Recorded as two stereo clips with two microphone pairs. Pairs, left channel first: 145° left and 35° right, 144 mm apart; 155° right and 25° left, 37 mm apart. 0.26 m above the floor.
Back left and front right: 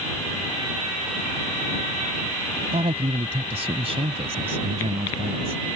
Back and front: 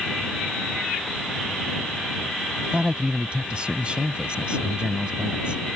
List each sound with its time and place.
2.7 s a man speaking: 20° right